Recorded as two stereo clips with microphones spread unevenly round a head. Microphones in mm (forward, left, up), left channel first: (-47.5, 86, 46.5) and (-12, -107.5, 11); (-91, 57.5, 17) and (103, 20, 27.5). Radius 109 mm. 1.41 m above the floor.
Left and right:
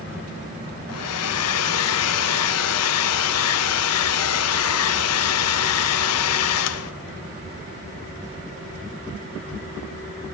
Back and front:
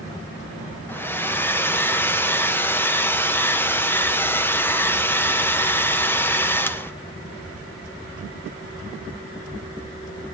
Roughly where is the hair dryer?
Left.